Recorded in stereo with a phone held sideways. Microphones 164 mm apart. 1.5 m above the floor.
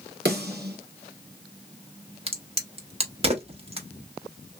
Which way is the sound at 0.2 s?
80° right.